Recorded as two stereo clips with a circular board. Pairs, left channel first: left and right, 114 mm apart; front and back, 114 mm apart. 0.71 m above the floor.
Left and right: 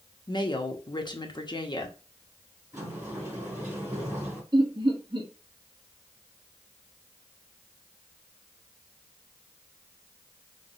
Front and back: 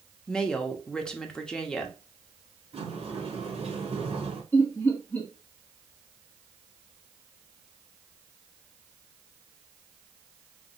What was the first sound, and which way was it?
A woman speaking, 80° left.